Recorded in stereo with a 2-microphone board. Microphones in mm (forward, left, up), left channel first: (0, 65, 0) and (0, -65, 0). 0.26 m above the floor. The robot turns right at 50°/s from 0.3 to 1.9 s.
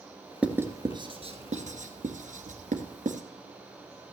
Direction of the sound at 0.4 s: 10° right (ahead or behind).